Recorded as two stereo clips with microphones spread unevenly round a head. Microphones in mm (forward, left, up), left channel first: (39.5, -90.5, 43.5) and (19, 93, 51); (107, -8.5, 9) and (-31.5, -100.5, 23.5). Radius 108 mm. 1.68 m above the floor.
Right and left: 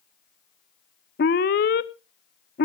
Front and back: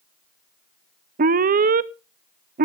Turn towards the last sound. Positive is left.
turn(degrees=-125)